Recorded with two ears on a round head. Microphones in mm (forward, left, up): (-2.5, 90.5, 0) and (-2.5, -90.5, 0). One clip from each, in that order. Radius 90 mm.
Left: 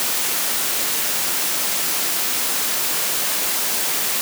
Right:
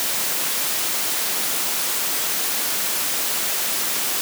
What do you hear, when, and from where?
Only background noise.